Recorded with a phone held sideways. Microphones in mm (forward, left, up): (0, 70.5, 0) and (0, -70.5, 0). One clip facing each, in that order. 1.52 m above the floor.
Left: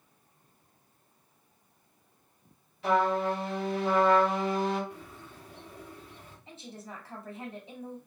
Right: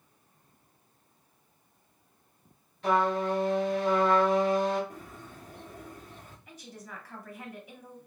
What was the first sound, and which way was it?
A trumpet, 5° left (ahead or behind).